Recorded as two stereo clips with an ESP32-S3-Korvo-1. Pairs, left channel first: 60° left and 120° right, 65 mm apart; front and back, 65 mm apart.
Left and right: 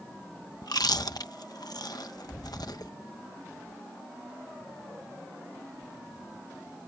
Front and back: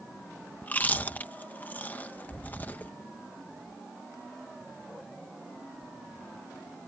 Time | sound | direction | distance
0.6 | chewing | 65° left | ?